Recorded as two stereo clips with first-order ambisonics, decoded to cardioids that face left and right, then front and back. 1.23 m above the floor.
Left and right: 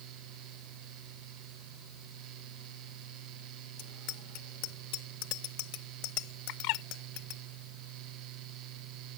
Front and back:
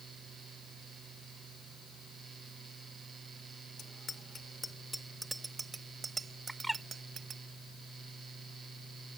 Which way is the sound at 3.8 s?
65° left.